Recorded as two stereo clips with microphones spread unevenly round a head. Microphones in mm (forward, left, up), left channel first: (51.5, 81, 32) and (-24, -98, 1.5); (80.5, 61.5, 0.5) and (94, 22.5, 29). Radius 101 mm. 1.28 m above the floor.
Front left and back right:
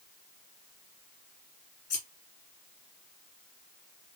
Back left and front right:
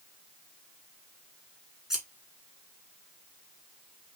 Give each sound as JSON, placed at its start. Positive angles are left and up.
{"t": 1.9, "sound": "scissors", "azimuth_deg": 15, "distance_m": 2.5}